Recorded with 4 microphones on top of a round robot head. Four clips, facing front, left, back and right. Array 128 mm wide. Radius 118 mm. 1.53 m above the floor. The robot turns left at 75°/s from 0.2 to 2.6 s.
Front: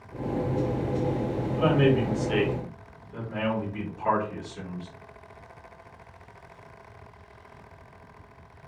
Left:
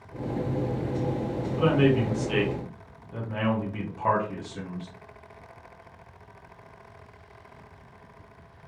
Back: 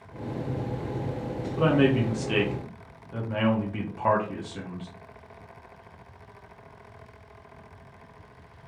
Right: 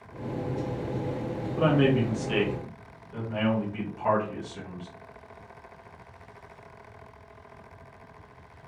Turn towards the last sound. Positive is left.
turn(degrees=155)